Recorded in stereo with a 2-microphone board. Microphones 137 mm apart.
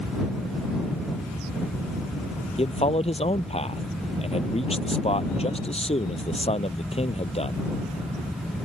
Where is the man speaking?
50° left (ahead or behind).